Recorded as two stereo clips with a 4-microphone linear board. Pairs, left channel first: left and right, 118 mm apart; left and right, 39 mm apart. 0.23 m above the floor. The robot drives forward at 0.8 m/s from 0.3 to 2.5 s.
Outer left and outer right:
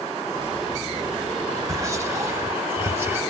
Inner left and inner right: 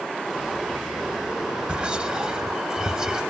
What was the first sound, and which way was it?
Whispering, 25° right (ahead or behind).